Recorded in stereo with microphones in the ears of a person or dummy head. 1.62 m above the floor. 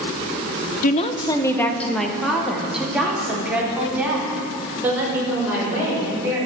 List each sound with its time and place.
0.8 s a woman speaking: 45° left (ahead or behind), 0.8 m; by 6.4 s 15° right (ahead or behind), 7 m